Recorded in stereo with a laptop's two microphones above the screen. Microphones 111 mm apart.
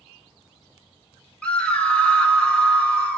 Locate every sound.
1.4 s a scream: 10° left (ahead or behind), 1.4 m